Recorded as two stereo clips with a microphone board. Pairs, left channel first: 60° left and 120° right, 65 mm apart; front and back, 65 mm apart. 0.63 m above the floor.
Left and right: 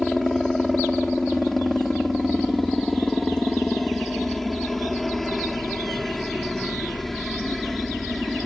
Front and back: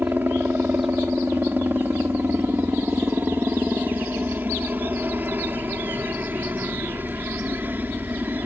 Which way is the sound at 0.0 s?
145° left.